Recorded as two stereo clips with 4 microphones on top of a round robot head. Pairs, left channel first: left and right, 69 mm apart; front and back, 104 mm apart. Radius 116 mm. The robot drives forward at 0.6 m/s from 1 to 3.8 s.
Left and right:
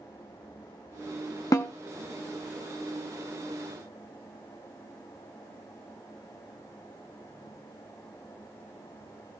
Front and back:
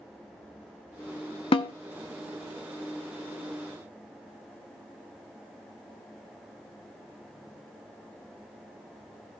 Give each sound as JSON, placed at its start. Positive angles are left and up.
{"t": 1.5, "sound": "a snare drum", "azimuth_deg": 30, "distance_m": 0.6}